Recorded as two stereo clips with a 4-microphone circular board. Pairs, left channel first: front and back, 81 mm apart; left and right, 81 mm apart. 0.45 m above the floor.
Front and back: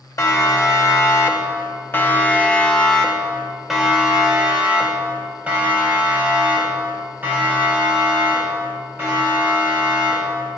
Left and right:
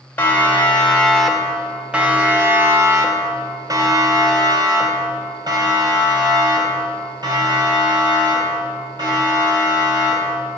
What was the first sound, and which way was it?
A siren, 30° left.